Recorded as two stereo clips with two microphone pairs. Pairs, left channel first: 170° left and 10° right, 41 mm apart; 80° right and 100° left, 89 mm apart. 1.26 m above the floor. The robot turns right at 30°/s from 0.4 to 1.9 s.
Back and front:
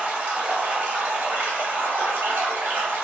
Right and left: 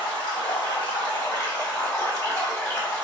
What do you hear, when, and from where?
0.0 s running water: 65° right, 1.4 m; by 3.0 s 20° right, 1.4 m